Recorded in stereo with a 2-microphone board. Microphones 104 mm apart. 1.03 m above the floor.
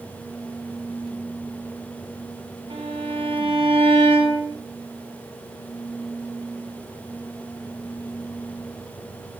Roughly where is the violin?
Right.